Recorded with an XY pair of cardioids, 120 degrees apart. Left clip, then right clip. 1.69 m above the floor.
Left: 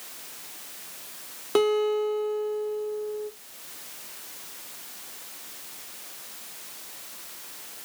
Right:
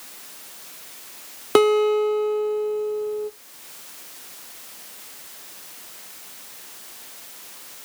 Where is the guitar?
50° right, 0.6 m.